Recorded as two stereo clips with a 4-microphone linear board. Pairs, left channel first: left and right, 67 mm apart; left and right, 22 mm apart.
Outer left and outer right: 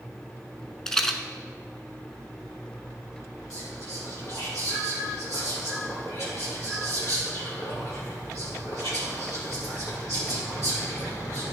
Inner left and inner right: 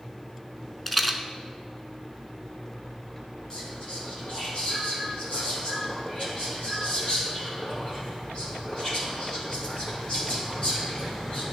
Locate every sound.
0.9 s a rattle: 10° left (ahead or behind), 0.7 m
3.5 s whispering: 55° left (ahead or behind), 2.5 m